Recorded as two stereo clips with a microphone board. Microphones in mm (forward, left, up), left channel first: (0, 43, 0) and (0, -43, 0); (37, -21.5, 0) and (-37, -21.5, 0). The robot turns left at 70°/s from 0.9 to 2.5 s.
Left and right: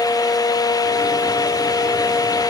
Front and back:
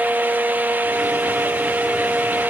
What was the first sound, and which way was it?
Only background noise.